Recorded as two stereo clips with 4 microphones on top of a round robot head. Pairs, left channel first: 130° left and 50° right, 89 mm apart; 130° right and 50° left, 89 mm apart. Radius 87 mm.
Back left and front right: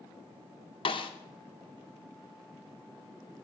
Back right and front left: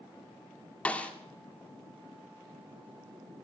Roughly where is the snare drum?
Behind left.